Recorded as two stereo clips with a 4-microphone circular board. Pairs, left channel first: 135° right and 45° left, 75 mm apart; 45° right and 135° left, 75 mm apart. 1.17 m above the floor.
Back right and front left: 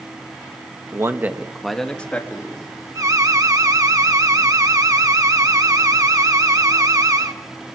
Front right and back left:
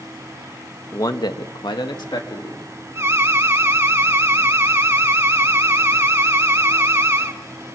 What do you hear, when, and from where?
0.9 s a man speaking: 5° right, 1.2 m; by 2.7 s 75° right, 2.5 m
3.0 s an alarm: 80° left, 1.6 m